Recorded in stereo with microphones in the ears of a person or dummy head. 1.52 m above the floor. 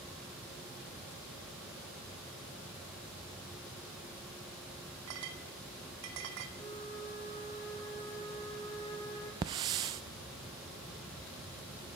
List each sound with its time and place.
5.1 s a clink: 65° right (ahead or behind), 2.5 m
6.6 s a flute: 25° left (ahead or behind), 4.5 m
9.4 s a hiss: 25° right (ahead or behind), 0.6 m